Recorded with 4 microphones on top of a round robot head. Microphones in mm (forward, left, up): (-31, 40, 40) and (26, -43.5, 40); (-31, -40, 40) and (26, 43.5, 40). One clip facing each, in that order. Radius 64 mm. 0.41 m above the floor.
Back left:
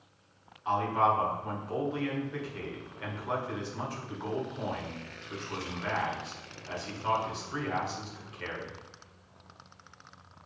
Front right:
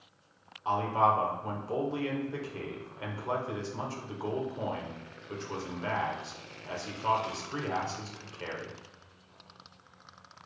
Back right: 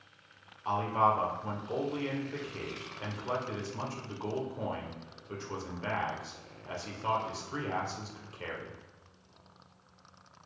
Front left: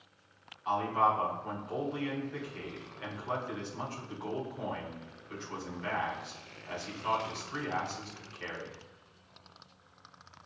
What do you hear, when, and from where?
0.7 s a man speaking: 90° right, 1.8 m